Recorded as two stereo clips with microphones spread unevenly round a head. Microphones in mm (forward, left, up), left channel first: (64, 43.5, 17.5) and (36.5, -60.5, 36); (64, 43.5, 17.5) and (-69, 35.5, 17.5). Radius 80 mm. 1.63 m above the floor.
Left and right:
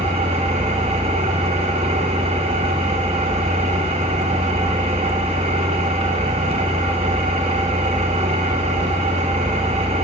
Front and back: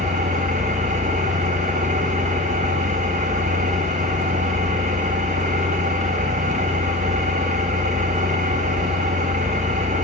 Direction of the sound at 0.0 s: 135° right.